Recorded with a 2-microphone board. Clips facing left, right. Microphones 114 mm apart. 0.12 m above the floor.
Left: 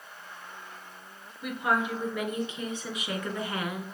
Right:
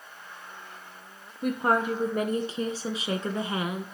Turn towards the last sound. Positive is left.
turn(degrees=-15)  # may be behind; listen again after turning